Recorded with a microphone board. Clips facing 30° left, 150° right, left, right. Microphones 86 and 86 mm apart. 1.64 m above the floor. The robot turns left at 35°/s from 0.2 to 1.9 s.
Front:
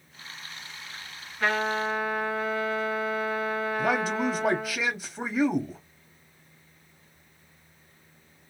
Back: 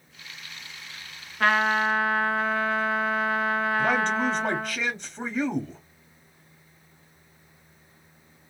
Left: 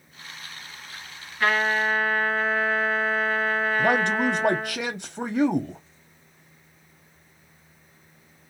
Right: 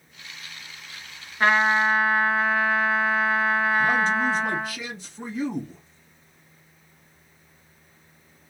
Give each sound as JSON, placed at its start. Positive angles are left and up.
{"t": 1.4, "sound": "a trumpet", "azimuth_deg": -150, "distance_m": 2.0}
{"t": 3.8, "sound": "a man speaking", "azimuth_deg": 110, "distance_m": 0.6}